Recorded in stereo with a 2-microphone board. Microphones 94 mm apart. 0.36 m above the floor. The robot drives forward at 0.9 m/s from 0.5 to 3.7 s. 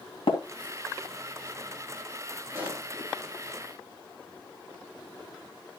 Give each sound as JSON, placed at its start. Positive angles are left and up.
{"t": 0.3, "sound": "tapping", "side_deg": 70, "distance_m": 2.5}
{"t": 2.5, "sound": "a pop", "side_deg": -20, "distance_m": 7.0}